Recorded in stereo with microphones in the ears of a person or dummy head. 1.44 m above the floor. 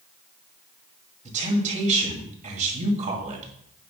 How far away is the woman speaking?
About 2.5 m.